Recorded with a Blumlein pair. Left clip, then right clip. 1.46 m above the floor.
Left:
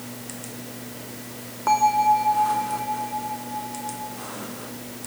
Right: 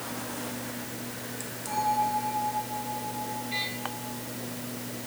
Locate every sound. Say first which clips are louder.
1.7 s a bell: left 9 dB; 40° left, 2.5 m